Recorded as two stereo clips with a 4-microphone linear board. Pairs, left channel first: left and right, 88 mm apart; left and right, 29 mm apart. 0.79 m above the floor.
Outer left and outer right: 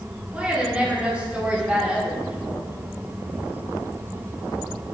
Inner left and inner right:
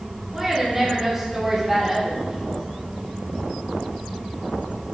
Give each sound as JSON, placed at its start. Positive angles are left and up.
{"t": 0.3, "sound": "a woman speaking", "side_deg": -10, "distance_m": 1.9}